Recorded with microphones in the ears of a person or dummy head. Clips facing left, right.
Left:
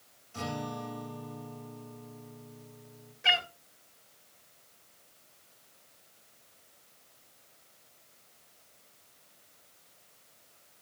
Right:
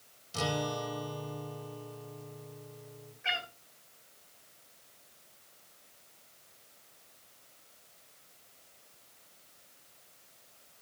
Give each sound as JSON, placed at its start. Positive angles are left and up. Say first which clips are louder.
{"t": 0.3, "sound": "a guitar", "louder": "right 3 dB", "side_deg": -55, "distance_m": 2.5}
{"t": 3.2, "sound": "a cat meowing", "louder": "left 6 dB", "side_deg": 60, "distance_m": 2.0}